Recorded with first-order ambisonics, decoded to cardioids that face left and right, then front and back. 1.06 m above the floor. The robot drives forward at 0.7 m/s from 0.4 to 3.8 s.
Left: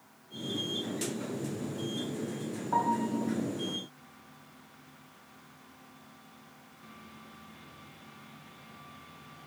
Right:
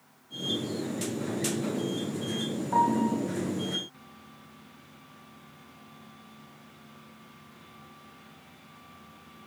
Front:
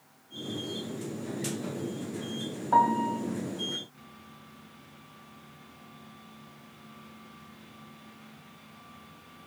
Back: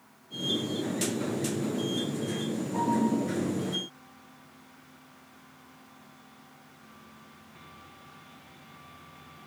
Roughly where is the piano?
Ahead.